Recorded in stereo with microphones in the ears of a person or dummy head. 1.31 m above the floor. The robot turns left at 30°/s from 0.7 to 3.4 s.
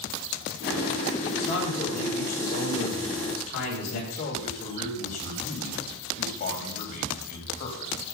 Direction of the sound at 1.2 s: 155° left.